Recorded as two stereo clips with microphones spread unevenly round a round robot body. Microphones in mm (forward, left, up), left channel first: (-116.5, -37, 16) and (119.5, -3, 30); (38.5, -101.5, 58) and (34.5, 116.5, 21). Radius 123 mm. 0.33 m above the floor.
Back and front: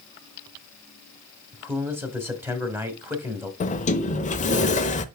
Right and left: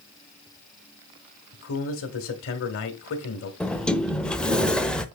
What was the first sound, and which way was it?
A man speaking, 75° right.